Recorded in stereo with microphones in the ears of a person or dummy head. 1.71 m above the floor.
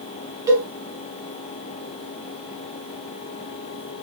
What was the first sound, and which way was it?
A cowbell, 20° right (ahead or behind).